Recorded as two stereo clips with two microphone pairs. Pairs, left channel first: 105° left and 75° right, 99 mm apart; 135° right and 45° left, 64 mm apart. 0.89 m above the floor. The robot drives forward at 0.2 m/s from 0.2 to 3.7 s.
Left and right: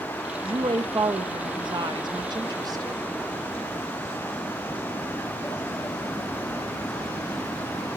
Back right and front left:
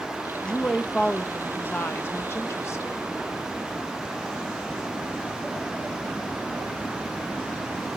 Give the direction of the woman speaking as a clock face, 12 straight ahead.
2 o'clock.